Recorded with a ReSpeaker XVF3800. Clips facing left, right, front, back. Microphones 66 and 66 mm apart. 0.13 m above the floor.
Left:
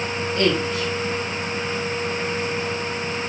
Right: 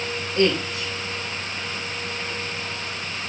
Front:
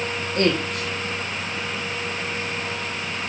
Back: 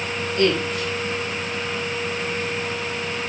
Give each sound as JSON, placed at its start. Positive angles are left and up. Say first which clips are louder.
{"t": 0.4, "sound": "a woman speaking", "louder": "even, back 1 dB", "azimuth_deg": -35, "distance_m": 4.5}